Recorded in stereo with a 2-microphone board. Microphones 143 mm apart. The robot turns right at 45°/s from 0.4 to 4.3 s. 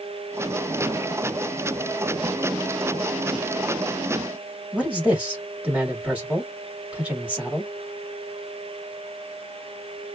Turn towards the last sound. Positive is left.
turn(degrees=-10)  # may be behind; listen again after turning